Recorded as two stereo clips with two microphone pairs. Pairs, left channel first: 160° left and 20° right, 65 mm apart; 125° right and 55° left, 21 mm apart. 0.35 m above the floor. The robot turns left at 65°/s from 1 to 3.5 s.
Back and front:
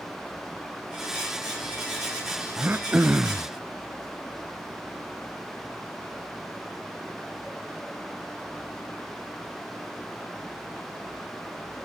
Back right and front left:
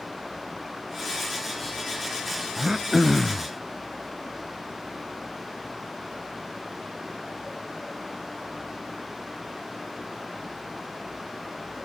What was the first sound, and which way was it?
Throat clearing, straight ahead.